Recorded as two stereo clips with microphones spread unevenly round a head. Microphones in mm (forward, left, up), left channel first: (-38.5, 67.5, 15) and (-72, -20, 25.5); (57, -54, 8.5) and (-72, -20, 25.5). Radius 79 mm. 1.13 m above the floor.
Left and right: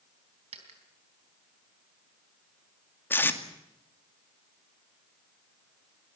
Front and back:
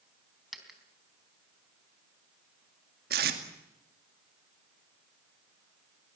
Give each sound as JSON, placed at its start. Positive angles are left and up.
{"t": 0.5, "sound": "a dropped coin", "azimuth_deg": -110, "distance_m": 3.5}
{"t": 3.1, "sound": "tape being pulled", "azimuth_deg": 135, "distance_m": 2.5}